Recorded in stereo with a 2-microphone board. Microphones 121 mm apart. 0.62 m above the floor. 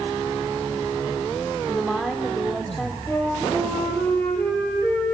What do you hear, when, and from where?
1.7 s a woman speaking: centre (ahead or behind), 1.7 m
3.1 s a flute: 15° left (ahead or behind), 9.5 m